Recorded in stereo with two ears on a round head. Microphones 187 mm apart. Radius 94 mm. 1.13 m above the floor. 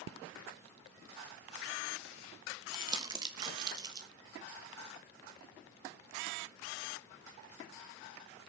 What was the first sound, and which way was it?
Crumpling, 20° right (ahead or behind).